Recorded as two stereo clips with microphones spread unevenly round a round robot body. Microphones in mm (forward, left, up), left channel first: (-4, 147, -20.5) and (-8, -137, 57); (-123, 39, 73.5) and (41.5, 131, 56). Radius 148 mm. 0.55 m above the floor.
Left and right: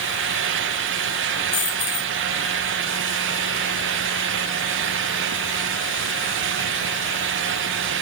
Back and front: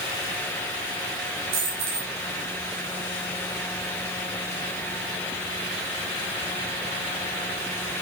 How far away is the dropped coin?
About 3.5 m.